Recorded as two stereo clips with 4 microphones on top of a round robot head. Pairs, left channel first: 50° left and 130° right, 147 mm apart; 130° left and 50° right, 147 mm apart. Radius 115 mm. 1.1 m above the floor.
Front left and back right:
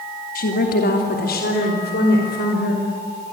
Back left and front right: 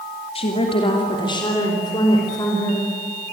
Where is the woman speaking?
75° left, 2.5 m; by 2.9 s 60° left, 5.5 m.